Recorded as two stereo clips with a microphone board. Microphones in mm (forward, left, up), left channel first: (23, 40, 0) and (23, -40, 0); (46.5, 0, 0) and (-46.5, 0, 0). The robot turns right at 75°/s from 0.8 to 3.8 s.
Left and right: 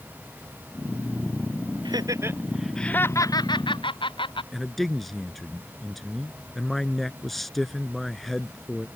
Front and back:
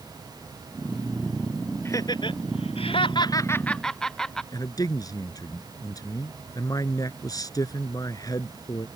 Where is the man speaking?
5° left.